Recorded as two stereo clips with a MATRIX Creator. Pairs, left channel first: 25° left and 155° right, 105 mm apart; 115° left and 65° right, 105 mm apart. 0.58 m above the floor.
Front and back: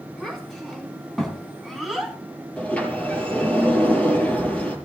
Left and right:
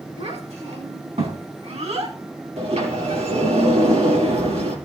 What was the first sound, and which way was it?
A child speaking, 65° right.